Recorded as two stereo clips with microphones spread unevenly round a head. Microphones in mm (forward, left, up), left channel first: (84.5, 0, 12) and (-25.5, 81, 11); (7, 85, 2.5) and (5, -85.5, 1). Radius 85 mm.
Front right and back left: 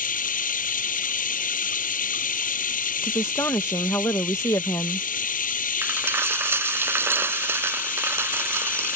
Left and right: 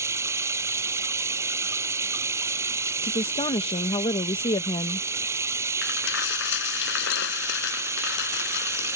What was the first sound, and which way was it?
Running water, 15° right.